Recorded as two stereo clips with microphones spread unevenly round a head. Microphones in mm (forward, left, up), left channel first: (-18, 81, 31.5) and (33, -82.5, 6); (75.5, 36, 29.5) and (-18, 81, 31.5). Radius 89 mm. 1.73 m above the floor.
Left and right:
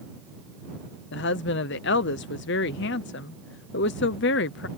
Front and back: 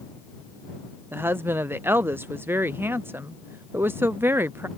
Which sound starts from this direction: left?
A woman speaking, at 1.1 s.